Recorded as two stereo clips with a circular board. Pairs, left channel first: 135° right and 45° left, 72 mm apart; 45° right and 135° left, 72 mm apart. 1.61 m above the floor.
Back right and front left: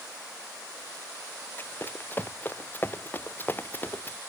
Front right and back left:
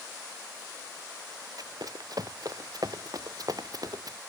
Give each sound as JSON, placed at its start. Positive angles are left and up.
{"t": 1.6, "sound": "running footsteps", "azimuth_deg": 165}